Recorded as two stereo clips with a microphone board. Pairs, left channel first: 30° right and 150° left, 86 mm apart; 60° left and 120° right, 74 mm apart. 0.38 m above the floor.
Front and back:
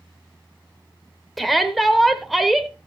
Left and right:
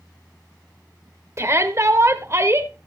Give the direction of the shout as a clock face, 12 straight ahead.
4 o'clock.